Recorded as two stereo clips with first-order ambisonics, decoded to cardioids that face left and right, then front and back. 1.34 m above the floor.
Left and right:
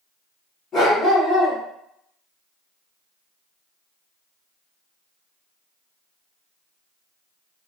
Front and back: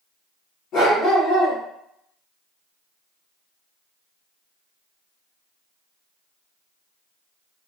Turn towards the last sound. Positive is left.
turn(degrees=30)